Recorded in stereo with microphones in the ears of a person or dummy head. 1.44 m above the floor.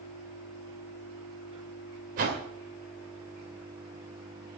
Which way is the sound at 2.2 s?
50° right (ahead or behind).